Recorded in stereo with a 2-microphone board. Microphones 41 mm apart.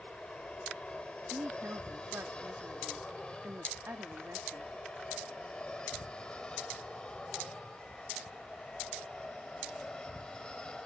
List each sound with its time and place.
0.0 s an aircraft: 25° left (ahead or behind); by 10.9 s 20° left (ahead or behind)
1.3 s a woman speaking: 65° right (ahead or behind)